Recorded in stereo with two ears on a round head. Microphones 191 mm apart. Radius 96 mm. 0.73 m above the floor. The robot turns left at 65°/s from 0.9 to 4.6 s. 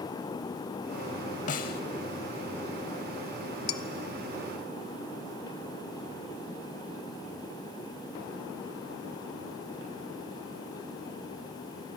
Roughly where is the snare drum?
Left.